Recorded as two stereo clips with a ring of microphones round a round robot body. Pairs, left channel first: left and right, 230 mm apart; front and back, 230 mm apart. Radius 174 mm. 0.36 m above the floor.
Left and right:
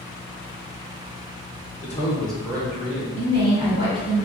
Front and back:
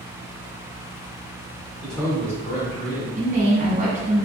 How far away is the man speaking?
About 1.1 m.